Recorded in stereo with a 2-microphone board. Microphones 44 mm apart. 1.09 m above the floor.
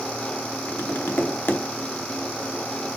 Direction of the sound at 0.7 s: 55° left (ahead or behind).